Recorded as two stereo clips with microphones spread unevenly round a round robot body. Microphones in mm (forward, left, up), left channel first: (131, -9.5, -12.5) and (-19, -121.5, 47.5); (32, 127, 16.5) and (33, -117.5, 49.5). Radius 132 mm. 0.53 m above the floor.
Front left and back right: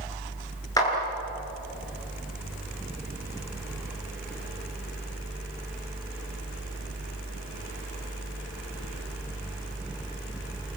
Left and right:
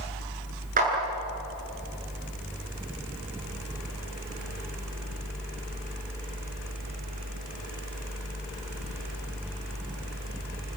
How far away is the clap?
About 9 m.